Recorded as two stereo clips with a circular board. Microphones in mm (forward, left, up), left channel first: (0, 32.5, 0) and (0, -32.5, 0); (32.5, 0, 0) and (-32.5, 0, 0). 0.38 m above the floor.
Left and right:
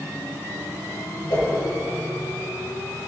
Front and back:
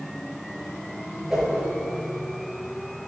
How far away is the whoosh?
About 4.5 m.